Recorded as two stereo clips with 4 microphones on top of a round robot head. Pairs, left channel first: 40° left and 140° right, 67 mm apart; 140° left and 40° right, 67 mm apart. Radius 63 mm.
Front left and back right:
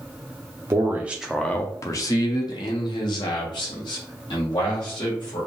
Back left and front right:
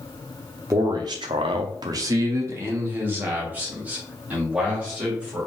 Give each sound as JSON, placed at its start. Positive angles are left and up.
{"t": 0.7, "sound": "a man speaking", "azimuth_deg": -90, "distance_m": 0.6}